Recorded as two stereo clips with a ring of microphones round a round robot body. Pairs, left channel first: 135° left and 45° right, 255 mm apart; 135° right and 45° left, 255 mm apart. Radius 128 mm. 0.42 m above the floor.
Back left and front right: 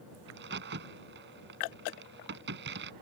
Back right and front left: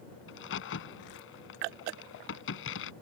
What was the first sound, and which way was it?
A crack, 90° right.